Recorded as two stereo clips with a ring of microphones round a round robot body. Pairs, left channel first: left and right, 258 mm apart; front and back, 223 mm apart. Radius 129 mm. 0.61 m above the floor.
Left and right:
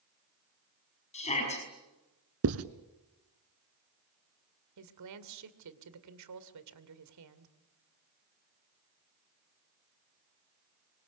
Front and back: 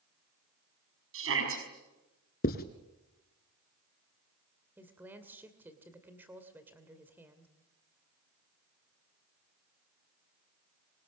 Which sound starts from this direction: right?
A woman speaking, at 4.8 s.